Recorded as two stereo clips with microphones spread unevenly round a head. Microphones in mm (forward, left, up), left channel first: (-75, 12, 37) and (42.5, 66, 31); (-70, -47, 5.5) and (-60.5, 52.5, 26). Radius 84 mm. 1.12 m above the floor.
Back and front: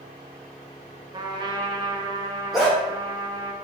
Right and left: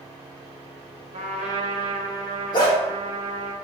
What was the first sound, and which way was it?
A trumpet, 80° left.